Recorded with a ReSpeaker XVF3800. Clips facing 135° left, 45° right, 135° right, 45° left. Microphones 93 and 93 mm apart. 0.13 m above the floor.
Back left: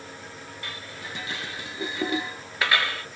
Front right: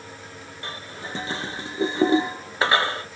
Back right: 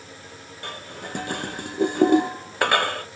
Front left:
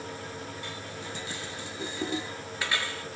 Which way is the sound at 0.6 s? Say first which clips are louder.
Front right 5 dB, back right 3 dB; 105° right.